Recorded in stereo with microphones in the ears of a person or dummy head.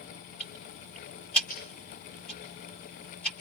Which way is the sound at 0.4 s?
5° left (ahead or behind).